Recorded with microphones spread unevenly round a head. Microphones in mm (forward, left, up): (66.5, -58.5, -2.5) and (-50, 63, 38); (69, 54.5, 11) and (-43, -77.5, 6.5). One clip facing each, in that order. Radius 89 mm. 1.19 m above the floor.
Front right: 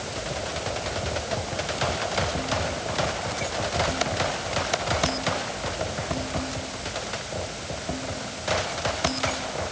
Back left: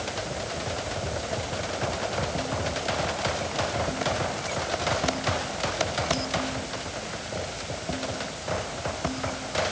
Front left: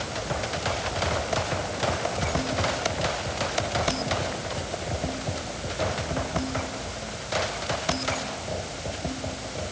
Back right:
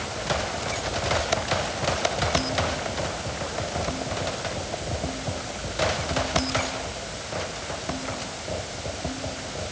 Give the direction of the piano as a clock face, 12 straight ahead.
I don't hear a piano.